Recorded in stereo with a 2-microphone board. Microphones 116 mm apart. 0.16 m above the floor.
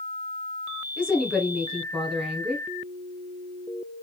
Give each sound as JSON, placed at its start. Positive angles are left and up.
{"t": 1.0, "sound": "a woman speaking", "side_deg": -5, "distance_m": 1.4}